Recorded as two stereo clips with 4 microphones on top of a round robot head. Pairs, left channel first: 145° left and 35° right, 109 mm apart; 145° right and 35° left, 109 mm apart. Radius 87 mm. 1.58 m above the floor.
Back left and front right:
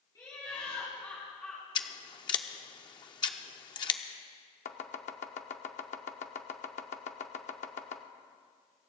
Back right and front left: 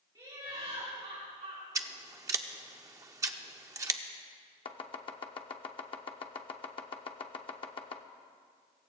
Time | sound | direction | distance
0.1 | laughter | 90° left | 3.5 m
1.8 | scissors | 95° left | 0.6 m
4.7 | chopping | 165° left | 0.7 m